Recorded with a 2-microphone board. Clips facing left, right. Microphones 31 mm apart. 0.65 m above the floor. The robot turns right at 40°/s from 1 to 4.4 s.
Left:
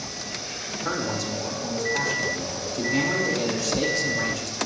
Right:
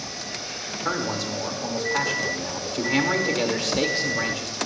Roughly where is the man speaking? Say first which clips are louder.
Right 1 dB; behind.